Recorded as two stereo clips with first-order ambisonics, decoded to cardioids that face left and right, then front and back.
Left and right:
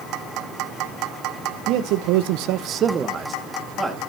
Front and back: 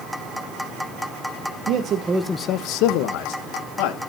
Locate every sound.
1.7 s a man speaking: 135° right, 1.2 m; by 4.0 s straight ahead, 3 m